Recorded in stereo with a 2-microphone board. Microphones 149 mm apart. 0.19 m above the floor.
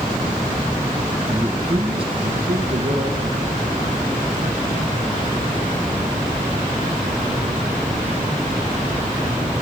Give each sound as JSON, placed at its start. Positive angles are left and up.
{"t": 1.3, "sound": "a man speaking", "side_deg": -10, "distance_m": 1.0}